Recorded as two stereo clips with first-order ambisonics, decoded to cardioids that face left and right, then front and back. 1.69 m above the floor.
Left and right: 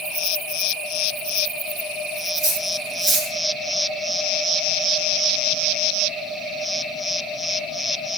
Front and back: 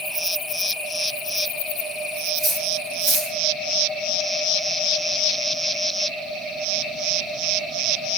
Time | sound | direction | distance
2.4 | cutlery clinking | 120° right | 1.2 m